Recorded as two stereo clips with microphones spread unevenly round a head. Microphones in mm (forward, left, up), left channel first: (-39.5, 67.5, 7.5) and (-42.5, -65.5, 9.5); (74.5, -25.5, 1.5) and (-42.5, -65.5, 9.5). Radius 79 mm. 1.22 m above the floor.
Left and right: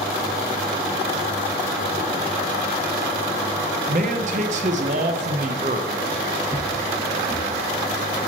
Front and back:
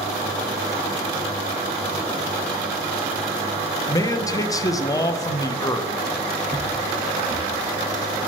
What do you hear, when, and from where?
3.9 s a man speaking: 45° right, 0.8 m
6.5 s footsteps: 150° left, 2.5 m; by 8.2 s 130° left, 3 m